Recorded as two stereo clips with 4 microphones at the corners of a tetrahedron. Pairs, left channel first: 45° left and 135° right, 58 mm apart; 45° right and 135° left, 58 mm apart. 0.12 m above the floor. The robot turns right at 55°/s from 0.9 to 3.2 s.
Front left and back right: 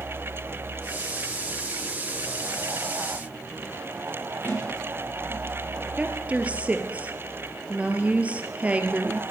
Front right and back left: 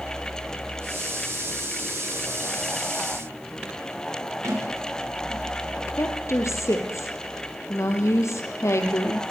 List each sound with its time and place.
4.4 s a sliding door: 105° left, 8 m
6.0 s a woman speaking: 70° right, 3 m